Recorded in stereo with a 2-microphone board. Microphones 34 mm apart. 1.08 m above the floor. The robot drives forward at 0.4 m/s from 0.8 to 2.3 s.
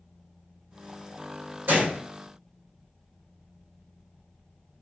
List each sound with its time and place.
1.7 s a gunshot: 80° right, 2.5 m